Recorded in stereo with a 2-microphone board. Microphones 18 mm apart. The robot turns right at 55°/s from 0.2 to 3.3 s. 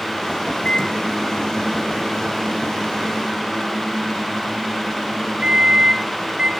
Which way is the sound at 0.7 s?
130° left.